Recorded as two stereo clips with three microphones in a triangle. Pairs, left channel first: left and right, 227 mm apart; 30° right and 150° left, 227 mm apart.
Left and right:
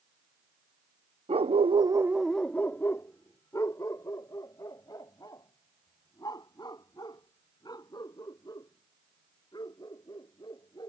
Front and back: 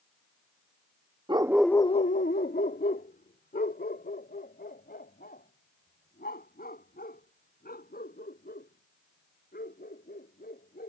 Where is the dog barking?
145° right; by 10.9 s 20° left.